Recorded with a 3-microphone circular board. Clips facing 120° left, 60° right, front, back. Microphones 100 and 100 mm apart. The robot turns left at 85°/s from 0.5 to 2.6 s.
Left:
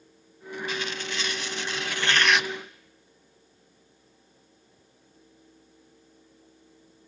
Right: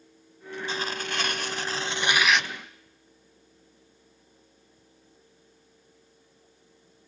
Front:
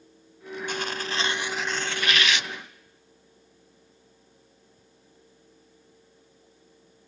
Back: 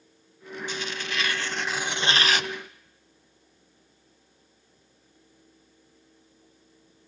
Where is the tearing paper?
10° right, 0.8 m; by 2.5 s 165° right, 0.8 m.